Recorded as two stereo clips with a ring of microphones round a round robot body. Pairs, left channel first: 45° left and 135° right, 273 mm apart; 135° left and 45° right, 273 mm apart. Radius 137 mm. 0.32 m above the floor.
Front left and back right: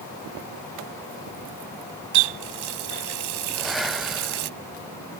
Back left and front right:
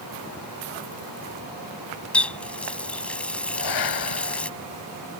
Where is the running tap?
140° right.